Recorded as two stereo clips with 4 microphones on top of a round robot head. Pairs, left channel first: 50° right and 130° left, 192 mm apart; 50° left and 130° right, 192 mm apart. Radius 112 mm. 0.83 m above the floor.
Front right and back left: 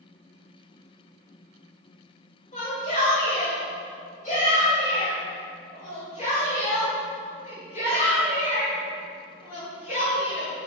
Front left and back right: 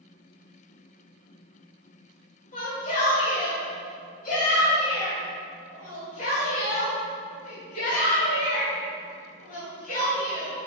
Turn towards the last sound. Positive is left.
turn(degrees=5)